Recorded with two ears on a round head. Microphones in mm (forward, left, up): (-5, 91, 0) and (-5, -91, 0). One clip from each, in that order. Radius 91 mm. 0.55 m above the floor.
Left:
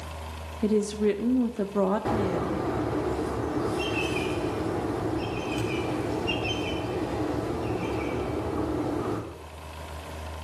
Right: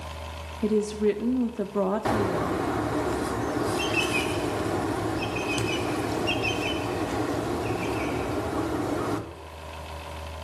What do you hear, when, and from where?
0.6 s a woman speaking: 5° left (ahead or behind), 0.7 m
2.0 s a bird: 45° right (ahead or behind), 1.6 m